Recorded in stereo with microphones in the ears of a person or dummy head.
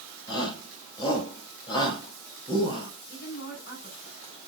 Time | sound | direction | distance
0.3 | a shout | 25° left (ahead or behind) | 6.5 m
3.1 | a woman speaking | 55° left (ahead or behind) | 5.5 m